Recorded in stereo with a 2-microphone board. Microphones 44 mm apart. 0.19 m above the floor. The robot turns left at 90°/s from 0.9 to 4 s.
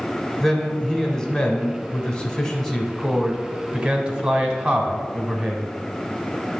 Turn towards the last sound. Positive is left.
turn(degrees=-20)  # may be behind; listen again after turning